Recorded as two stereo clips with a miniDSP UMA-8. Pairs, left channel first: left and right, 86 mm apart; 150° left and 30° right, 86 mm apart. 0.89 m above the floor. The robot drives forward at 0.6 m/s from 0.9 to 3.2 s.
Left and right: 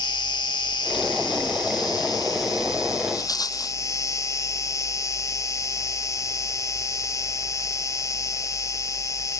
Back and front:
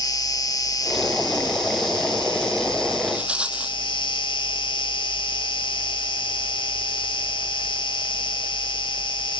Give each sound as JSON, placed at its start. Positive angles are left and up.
{"t": 0.0, "sound": "an insect", "azimuth_deg": 110}
{"t": 3.1, "sound": "a rattle", "azimuth_deg": 45}